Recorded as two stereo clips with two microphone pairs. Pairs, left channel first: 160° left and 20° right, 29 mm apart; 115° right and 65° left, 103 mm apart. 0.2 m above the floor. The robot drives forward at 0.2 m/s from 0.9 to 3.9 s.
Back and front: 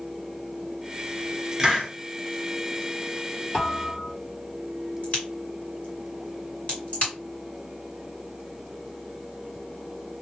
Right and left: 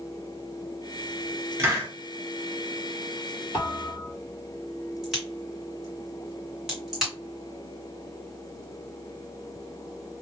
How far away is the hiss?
About 1.3 m.